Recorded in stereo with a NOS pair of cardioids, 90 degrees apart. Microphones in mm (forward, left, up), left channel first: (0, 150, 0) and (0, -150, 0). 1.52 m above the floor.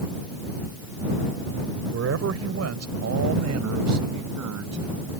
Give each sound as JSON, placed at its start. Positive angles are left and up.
{"t": 1.9, "sound": "a man speaking", "azimuth_deg": -55}